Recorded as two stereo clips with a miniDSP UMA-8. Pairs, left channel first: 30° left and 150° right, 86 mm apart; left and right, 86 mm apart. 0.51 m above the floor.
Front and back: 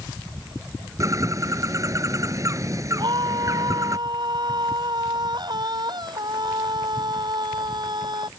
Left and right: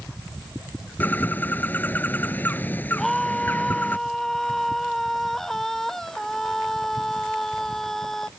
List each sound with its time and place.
1.0 s a bird: 160° left
3.0 s a scream: 175° left